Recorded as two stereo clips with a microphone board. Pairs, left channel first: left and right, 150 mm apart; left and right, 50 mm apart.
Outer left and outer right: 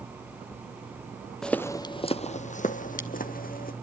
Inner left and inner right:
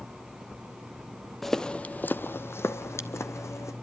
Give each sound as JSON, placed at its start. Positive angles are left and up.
{"t": 1.4, "sound": "footsteps", "side_deg": 5, "distance_m": 0.7}